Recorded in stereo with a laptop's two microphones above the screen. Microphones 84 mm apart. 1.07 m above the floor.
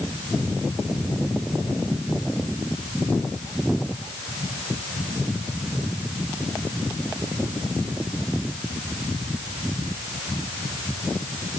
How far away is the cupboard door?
No cupboard door in this recording.